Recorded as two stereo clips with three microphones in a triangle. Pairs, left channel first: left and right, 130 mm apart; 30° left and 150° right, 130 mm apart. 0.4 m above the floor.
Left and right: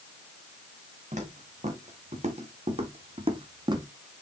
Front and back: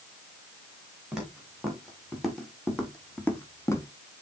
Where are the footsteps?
65° right, 2.5 m; by 3.9 s 35° right, 0.9 m.